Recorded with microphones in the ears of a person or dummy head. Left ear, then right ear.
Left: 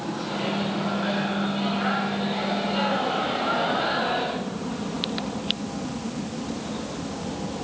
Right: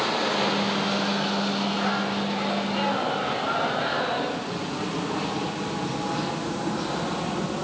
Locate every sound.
0.3 s a microwave: centre (ahead or behind), 5.5 m